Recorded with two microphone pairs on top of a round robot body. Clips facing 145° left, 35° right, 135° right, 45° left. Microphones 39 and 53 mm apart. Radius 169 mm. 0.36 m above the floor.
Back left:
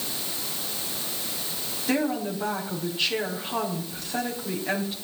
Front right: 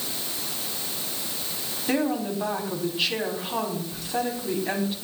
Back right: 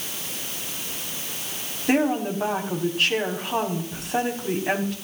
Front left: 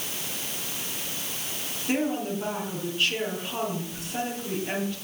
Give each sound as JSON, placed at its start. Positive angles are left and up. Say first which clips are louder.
{"t": 1.9, "sound": "a woman speaking", "louder": "front right 1 dB, back right 5 dB", "azimuth_deg": -115, "distance_m": 4.5}